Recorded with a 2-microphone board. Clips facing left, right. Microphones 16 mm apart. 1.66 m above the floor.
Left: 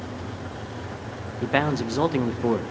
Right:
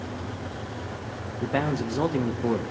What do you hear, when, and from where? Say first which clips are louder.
1.4 s a man speaking: left 3 dB; 55° left (ahead or behind), 0.5 m